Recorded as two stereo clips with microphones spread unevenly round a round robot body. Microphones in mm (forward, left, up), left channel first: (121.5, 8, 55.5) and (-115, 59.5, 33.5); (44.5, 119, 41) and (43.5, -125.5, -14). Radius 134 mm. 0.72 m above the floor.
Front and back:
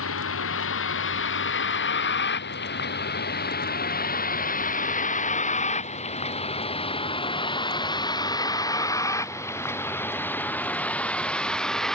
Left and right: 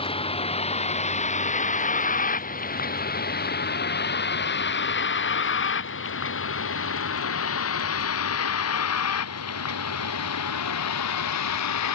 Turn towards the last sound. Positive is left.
turn(degrees=75)